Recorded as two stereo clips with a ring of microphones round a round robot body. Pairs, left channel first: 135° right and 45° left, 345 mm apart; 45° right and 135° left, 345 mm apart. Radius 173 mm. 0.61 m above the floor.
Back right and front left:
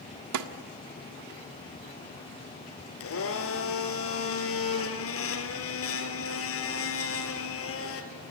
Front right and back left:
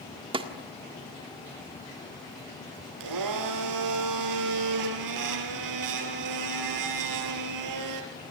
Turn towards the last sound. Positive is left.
turn(degrees=170)